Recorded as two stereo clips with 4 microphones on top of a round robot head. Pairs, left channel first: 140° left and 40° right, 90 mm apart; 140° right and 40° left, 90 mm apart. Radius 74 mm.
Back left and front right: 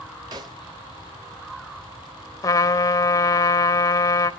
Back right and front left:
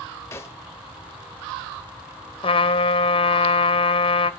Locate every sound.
0.3 s a snare drum: 80° right, 0.9 m
2.4 s a trumpet: 165° right, 1.0 m